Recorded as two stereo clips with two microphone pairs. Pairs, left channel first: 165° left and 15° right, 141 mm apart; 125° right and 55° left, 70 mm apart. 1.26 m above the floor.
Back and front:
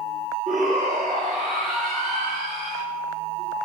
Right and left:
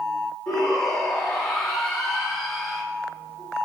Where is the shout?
40° right, 2.5 m.